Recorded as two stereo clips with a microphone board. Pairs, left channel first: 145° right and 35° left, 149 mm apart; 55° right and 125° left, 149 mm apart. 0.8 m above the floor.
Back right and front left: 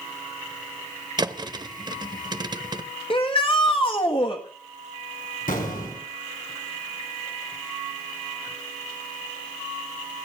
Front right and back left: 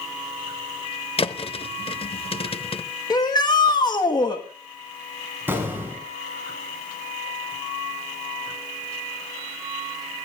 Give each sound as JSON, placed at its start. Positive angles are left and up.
{"t": 1.2, "sound": "a thud", "azimuth_deg": -20, "distance_m": 0.8}
{"t": 3.1, "sound": "a shout", "azimuth_deg": -110, "distance_m": 1.4}
{"t": 5.5, "sound": "an explosion", "azimuth_deg": -160, "distance_m": 4.5}